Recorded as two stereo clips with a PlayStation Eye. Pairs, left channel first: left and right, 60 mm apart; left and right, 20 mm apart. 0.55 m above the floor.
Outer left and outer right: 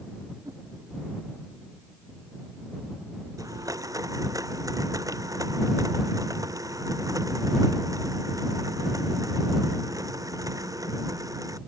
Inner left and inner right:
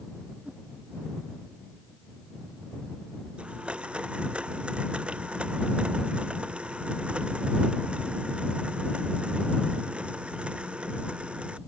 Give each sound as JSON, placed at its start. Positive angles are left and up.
{"t": 0.4, "sound": "a whoosh", "side_deg": -70}
{"t": 3.4, "sound": "a blender", "side_deg": -75}